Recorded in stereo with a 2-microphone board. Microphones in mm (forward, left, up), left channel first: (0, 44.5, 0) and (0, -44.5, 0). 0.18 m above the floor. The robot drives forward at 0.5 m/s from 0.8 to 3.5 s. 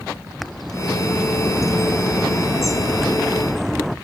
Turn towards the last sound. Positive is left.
turn(degrees=0)  # may be behind; listen again after turning